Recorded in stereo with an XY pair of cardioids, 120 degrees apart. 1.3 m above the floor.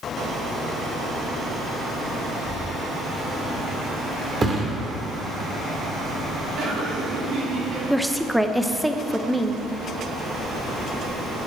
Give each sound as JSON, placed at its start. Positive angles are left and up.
{"t": 4.4, "sound": "a thud", "azimuth_deg": -25, "distance_m": 1.9}
{"t": 6.6, "sound": "laughter", "azimuth_deg": -65, "distance_m": 4.0}
{"t": 7.9, "sound": "a woman speaking", "azimuth_deg": 0, "distance_m": 0.8}